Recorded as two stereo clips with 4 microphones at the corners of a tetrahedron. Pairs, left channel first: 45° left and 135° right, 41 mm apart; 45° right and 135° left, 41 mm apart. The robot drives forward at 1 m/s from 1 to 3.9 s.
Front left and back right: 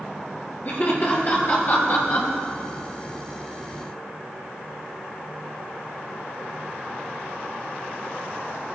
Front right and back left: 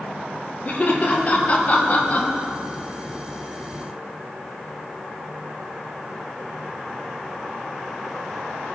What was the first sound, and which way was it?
Laughter, 5° left.